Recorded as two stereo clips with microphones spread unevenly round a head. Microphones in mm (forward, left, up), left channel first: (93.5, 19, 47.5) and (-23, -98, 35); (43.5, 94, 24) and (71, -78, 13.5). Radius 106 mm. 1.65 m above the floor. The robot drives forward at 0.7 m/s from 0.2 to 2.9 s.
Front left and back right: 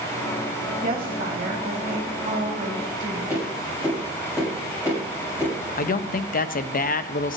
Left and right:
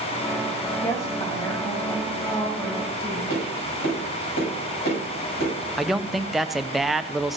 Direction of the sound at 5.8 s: 10° left.